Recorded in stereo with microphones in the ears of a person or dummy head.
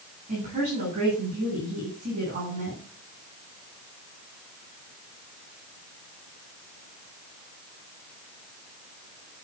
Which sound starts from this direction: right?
A woman speaking, at 0.3 s.